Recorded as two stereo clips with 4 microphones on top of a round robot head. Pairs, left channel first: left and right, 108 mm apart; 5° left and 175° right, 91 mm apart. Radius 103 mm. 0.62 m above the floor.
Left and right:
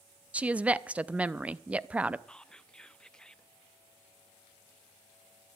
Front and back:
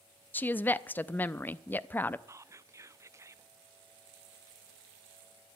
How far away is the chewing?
I don't hear chewing.